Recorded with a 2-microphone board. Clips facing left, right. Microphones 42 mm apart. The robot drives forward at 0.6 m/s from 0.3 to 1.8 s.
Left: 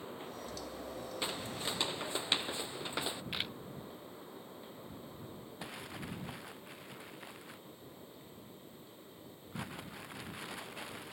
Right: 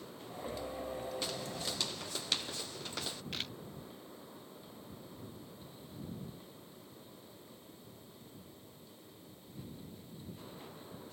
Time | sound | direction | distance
1.2 | footsteps | 25° left (ahead or behind) | ?
3.3 | a camera shutter | 20° left (ahead or behind) | ?
5.6 | crumpling | 75° left (ahead or behind) | ?